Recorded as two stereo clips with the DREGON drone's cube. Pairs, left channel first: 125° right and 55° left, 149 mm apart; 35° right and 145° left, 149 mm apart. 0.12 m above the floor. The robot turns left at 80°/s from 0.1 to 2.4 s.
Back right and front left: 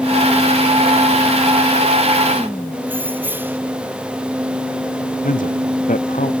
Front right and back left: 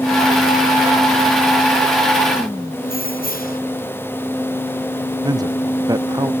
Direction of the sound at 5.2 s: 150° right.